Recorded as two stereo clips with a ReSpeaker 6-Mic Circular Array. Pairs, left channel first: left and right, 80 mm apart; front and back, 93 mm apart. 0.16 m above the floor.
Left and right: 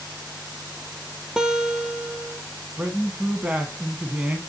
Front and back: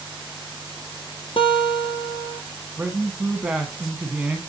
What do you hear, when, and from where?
1.4 s a guitar: 10° right, 0.9 m
2.8 s a man speaking: 130° right, 1.0 m